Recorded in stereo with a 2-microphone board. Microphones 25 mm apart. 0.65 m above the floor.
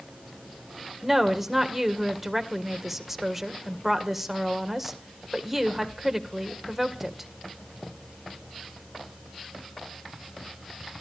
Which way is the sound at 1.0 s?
10° right (ahead or behind).